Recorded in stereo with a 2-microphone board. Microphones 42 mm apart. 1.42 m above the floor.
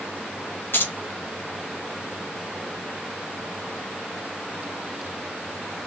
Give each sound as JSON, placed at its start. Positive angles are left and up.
{"t": 0.7, "sound": "keys jangling", "side_deg": 55, "distance_m": 0.8}